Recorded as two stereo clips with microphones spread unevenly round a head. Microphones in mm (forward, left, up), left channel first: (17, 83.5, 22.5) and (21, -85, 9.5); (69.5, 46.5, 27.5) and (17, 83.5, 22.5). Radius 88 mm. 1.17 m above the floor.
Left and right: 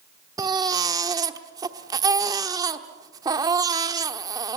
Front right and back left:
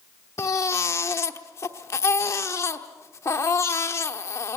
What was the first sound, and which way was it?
A baby crying, 20° right.